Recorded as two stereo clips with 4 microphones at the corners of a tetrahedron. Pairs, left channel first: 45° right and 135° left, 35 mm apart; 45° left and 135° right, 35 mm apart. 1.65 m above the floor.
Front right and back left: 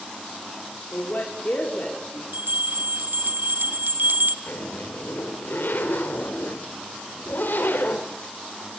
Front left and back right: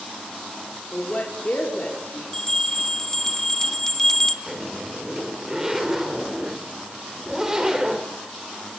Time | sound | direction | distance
0.9 | a woman speaking | 10° right | 5 m
2.3 | a bell | 120° left | 1.6 m
4.5 | a zipper | 60° right | 4.5 m